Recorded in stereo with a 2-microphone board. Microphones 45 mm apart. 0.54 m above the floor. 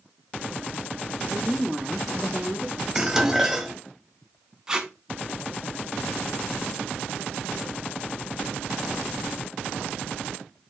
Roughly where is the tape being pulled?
Centre.